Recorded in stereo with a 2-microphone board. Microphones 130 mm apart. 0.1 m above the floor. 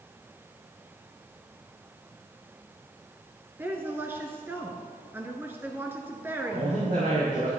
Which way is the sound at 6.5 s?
75° right (ahead or behind).